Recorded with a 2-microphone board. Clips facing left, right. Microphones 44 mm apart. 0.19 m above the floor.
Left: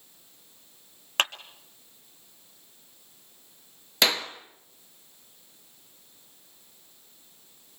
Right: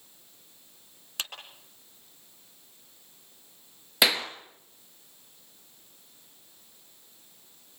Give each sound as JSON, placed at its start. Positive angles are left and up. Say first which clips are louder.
{"t": 1.2, "sound": "a clap", "louder": "left 11 dB", "side_deg": 55, "distance_m": 2.0}
{"t": 4.0, "sound": "a clap", "louder": "even", "side_deg": -5, "distance_m": 2.5}